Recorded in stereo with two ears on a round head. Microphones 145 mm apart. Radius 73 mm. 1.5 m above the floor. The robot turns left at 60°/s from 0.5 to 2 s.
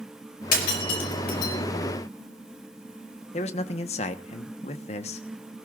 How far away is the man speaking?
About 1.1 m.